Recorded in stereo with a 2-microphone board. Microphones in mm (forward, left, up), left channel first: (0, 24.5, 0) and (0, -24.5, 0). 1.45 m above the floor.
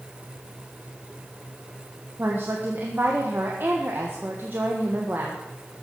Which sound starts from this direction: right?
A woman speaking, at 2.2 s.